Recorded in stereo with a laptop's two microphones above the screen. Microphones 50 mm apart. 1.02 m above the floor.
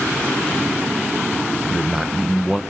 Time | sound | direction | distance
1.7 | a man speaking | 5° right (ahead or behind) | 0.8 m